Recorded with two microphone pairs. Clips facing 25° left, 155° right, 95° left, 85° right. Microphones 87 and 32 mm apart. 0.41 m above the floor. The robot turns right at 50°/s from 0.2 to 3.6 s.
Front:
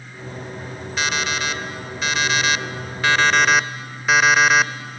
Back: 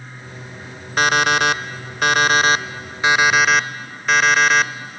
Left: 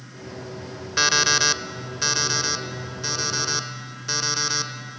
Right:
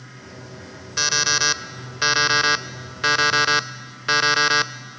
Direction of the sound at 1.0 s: 170° left.